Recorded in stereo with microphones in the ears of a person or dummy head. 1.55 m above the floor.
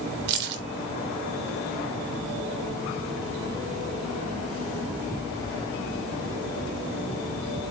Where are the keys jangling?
55° right (ahead or behind), 0.6 m.